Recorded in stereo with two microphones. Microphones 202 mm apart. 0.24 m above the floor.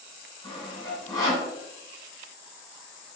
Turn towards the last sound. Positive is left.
turn(degrees=15)  # may be behind; listen again after turning